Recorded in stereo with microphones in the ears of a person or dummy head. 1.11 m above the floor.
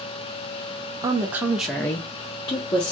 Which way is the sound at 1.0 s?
25° right (ahead or behind).